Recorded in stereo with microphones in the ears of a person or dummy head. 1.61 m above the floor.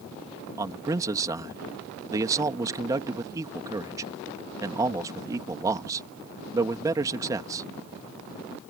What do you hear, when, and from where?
0.6 s a man speaking: 15° right (ahead or behind)